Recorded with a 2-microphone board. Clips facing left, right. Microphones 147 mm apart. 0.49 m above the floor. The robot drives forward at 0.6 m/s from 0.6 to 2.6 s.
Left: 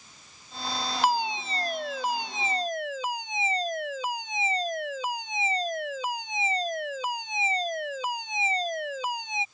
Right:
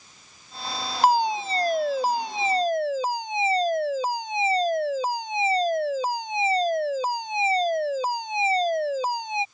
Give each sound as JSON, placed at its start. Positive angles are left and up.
{"t": 1.0, "sound": "a fire alarm", "side_deg": -45}